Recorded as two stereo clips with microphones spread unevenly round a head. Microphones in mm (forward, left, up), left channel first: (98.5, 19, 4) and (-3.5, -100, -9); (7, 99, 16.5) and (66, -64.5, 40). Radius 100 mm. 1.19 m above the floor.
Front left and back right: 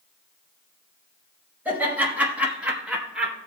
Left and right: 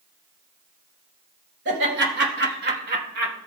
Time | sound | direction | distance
1.6 | laughter | 50° right | 5.5 m